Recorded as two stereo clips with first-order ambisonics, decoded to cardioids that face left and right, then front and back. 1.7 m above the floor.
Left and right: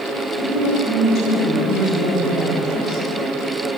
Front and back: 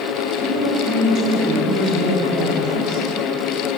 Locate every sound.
0.3 s a woman speaking: 140° left, 9 m